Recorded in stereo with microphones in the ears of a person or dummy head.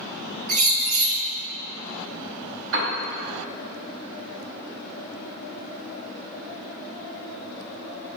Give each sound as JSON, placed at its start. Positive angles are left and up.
{"t": 0.5, "sound": "a bird", "side_deg": -45, "distance_m": 0.8}
{"t": 2.7, "sound": "a piano", "side_deg": -70, "distance_m": 2.0}